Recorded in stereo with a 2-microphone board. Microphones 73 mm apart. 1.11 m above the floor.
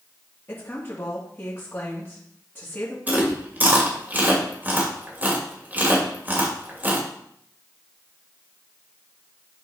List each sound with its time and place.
0.5 s a woman speaking: 30° left (ahead or behind), 2.5 m
3.1 s chewing: 25° right (ahead or behind), 2.5 m